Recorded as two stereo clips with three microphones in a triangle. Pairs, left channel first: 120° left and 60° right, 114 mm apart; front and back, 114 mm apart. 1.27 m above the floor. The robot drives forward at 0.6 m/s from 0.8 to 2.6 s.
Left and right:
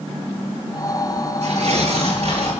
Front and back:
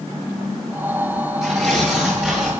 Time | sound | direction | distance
1.4 | tearing paper | 90° right | 8.5 m